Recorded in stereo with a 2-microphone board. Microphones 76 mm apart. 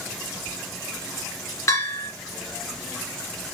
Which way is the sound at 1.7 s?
45° left (ahead or behind).